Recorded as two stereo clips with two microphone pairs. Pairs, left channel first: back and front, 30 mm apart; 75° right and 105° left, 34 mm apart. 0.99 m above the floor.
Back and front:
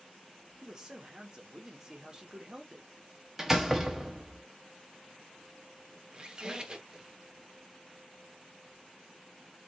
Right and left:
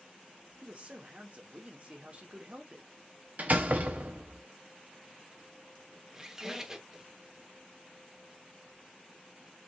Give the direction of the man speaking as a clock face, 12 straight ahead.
10 o'clock.